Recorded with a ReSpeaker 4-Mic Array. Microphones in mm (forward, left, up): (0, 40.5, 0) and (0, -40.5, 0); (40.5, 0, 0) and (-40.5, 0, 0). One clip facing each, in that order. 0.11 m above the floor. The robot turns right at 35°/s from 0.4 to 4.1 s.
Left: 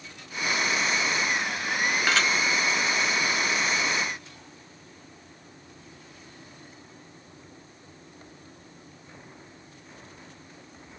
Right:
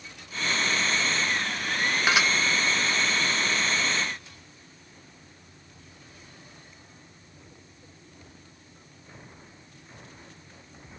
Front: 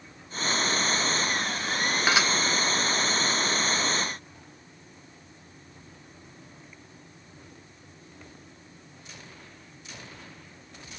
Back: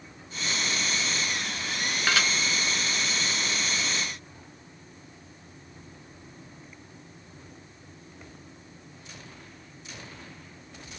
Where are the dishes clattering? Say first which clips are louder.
Right 2 dB, front 1 dB; 35° right, 0.8 m; by 2.3 s 30° right, 0.8 m.